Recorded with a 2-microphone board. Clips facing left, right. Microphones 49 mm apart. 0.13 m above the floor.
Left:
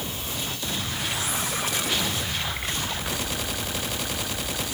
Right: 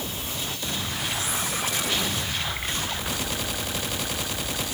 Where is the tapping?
No tapping in this recording.